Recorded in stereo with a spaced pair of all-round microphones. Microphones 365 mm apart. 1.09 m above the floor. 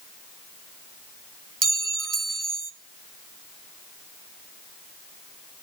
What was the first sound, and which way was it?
A clink, 55° right (ahead or behind).